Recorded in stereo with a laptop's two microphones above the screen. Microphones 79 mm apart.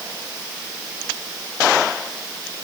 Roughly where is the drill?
I don't hear a drill.